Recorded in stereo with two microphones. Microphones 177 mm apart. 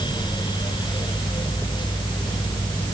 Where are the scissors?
No scissors in this recording.